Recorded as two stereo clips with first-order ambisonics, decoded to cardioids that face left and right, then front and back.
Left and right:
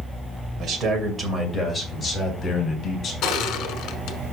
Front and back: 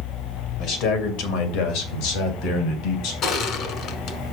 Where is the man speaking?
40° right, 2.5 m; by 3.1 s 30° left, 4 m.